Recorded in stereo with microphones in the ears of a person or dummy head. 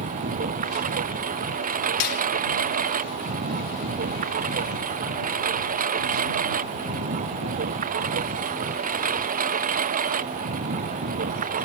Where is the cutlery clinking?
50° left (ahead or behind).